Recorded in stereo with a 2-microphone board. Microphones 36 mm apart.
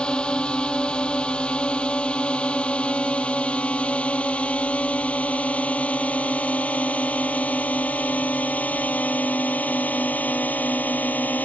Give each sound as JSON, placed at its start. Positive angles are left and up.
{"t": 0.0, "sound": "a drone", "side_deg": 30}